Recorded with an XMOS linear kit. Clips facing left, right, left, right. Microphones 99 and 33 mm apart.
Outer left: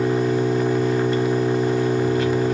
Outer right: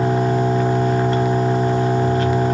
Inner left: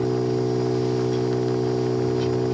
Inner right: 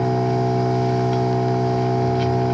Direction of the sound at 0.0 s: 45° right (ahead or behind).